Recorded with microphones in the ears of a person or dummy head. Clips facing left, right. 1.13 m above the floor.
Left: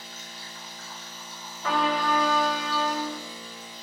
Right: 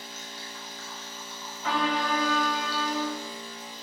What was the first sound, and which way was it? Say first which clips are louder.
A machine running: right 2 dB; 65° right (ahead or behind).